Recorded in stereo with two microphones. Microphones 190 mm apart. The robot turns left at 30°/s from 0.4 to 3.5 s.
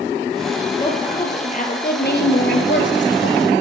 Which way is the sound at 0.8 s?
160° left.